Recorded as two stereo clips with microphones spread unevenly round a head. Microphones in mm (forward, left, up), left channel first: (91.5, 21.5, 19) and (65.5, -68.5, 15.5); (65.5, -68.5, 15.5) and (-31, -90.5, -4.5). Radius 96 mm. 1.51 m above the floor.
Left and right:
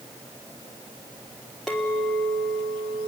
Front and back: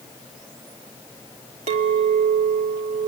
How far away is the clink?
About 1.2 m.